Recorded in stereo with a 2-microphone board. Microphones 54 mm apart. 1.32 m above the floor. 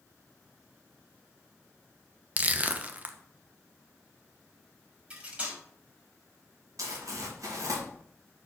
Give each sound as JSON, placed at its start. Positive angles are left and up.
{"t": 2.4, "sound": "crushing", "side_deg": -25, "distance_m": 0.6}
{"t": 5.1, "sound": "cutlery clinking", "side_deg": -20, "distance_m": 2.5}
{"t": 6.8, "sound": "crumpling", "side_deg": -80, "distance_m": 1.7}